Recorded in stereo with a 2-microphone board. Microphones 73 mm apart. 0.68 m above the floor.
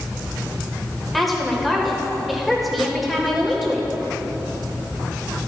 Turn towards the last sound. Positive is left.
turn(degrees=0)  # may be behind; listen again after turning